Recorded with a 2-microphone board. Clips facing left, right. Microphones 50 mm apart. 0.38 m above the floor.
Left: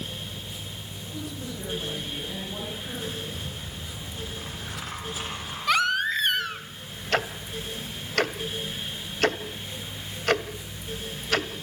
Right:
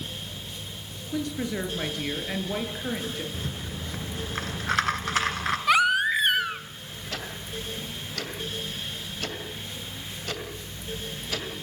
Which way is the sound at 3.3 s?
85° right.